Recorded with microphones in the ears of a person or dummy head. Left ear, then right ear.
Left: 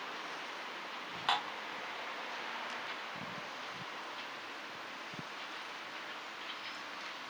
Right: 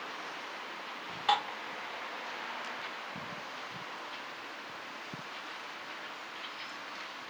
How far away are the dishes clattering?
About 1.6 m.